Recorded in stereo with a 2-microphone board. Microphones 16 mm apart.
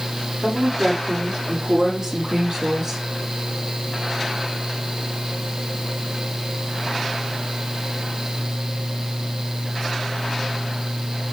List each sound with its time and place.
0.4 s a woman speaking: 75° right (ahead or behind), 5.5 m; by 3.0 s 40° right (ahead or behind), 3 m